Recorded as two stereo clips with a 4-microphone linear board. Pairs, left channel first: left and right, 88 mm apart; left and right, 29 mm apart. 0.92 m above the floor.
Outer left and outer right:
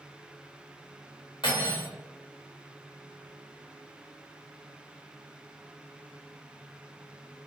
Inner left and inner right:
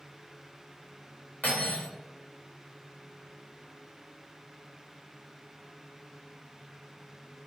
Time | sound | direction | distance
1.4 | cutlery clinking | 70° left (ahead or behind) | 1.2 m